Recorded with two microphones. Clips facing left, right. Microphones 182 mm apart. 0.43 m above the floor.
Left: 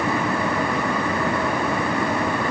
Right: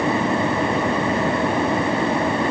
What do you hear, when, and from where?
Only background noise.